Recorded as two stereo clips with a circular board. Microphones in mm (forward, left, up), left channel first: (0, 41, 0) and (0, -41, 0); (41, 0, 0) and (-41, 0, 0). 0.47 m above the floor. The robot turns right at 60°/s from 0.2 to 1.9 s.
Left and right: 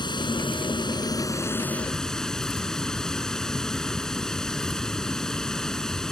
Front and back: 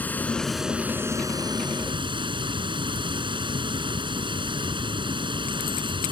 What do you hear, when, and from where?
0.0 s running water: 70° left; by 6.1 s 170° left